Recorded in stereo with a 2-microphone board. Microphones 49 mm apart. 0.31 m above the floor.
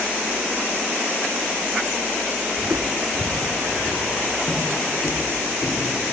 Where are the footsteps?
50° right (ahead or behind), 1.8 m; by 6.0 s 5° right (ahead or behind), 6.5 m.